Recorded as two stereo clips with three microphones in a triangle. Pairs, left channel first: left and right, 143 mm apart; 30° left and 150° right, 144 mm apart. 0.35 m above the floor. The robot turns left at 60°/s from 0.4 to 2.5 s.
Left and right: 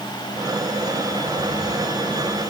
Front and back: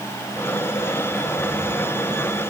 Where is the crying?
I don't hear crying.